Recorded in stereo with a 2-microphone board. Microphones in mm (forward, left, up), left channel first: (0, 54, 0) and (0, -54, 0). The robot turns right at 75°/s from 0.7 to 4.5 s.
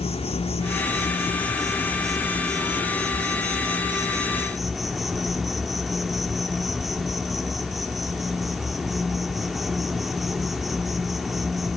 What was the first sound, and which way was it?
An insect, 75° left.